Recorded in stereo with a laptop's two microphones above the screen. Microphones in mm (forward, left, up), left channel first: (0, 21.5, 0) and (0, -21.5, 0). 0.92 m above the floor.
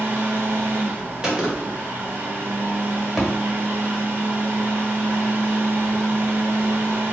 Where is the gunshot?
20° right (ahead or behind), 0.9 m.